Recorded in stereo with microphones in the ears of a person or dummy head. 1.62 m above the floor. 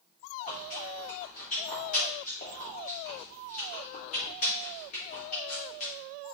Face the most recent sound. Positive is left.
turn(degrees=30)  # may be behind; listen again after turning